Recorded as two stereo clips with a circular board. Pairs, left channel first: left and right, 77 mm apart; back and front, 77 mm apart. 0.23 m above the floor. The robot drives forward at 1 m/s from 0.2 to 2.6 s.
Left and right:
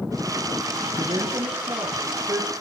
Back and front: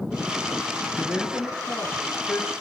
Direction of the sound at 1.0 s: 95° right.